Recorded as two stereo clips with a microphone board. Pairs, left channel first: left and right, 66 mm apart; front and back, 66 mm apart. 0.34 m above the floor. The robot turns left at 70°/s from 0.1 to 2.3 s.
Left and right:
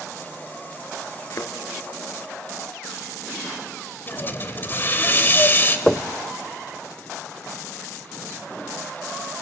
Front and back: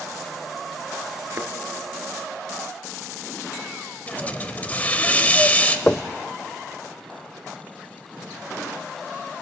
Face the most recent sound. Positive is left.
turn(degrees=5)